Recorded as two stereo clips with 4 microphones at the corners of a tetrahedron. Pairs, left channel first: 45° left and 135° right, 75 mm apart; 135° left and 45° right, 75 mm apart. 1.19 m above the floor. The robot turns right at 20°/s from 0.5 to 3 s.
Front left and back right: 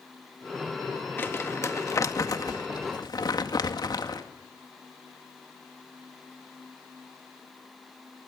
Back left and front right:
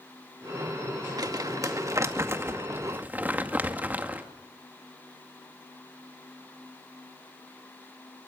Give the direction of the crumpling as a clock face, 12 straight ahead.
1 o'clock.